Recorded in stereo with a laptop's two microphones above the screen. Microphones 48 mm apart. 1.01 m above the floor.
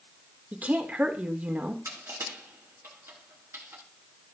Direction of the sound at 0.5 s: 35° right (ahead or behind).